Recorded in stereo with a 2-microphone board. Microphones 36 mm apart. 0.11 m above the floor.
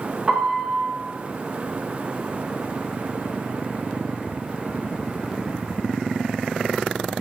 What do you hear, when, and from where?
0.3 s a piano: 25° right (ahead or behind), 7.5 m